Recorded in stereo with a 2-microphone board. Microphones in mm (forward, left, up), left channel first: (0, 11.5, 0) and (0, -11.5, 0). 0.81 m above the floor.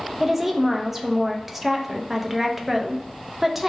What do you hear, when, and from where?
0.2 s a woman speaking: 10° right (ahead or behind), 0.5 m